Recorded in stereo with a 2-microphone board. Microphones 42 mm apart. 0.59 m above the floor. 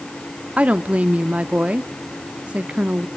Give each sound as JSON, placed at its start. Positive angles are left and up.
{"t": 0.6, "sound": "a woman speaking", "side_deg": -30, "distance_m": 0.7}